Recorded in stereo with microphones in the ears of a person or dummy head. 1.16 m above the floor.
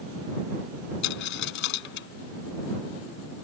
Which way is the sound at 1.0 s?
70° left (ahead or behind).